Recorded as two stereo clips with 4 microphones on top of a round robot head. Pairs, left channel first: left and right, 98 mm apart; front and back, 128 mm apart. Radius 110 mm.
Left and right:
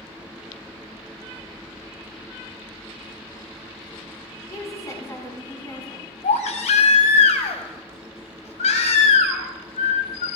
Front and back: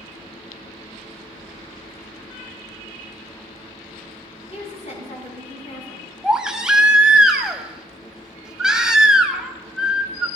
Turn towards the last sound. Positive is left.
turn(degrees=95)